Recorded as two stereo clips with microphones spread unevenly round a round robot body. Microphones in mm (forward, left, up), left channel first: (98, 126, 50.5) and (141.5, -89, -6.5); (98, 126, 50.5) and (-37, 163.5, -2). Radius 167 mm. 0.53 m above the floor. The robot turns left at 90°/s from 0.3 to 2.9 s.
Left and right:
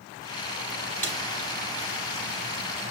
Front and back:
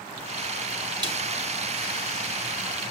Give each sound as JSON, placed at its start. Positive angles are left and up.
{"t": 1.0, "sound": "a snare drum", "azimuth_deg": -165, "distance_m": 1.4}